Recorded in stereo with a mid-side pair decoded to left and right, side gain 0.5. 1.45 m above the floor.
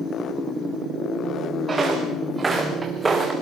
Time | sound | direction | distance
1.7 | footsteps | 30° right | 5.5 m